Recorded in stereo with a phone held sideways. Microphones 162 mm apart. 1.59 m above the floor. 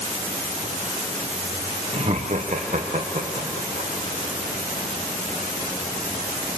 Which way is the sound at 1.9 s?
40° right (ahead or behind).